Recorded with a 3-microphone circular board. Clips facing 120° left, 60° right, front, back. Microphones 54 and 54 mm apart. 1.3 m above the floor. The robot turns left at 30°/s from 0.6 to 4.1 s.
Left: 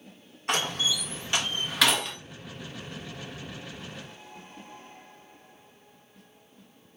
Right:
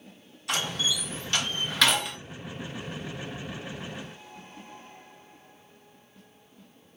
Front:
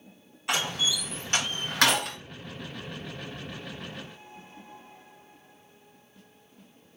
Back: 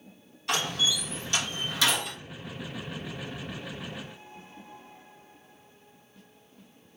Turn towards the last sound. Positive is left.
turn(degrees=-35)